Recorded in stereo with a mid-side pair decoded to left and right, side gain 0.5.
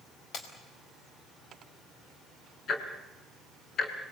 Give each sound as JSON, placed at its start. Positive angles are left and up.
{"t": 0.3, "sound": "breaking glass", "azimuth_deg": 60, "distance_m": 5.0}
{"t": 2.7, "sound": "ticking", "azimuth_deg": 55, "distance_m": 4.0}